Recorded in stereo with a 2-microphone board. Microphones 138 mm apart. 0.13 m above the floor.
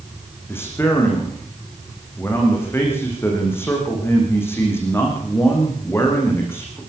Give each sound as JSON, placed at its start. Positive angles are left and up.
{"t": 0.5, "sound": "a man speaking", "side_deg": 20, "distance_m": 9.5}